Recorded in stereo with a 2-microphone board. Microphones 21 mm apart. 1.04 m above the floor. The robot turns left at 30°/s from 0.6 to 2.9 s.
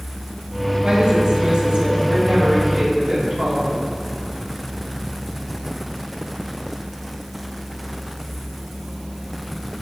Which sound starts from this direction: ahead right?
A woman speaking, at 0.8 s.